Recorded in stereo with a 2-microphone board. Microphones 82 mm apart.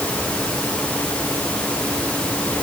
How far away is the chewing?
No chewing in this recording.